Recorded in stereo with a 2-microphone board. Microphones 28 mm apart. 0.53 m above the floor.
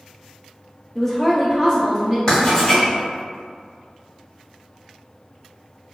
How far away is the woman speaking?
About 0.7 m.